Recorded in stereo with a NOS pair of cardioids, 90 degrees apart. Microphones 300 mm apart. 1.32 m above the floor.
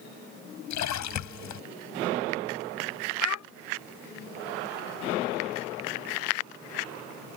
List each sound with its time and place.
0.7 s a splash: 70° left
3.2 s a child speaking: 70° left